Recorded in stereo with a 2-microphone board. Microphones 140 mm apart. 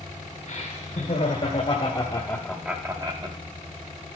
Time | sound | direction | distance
0.5 | laughter | 55° left (ahead or behind) | 2.5 m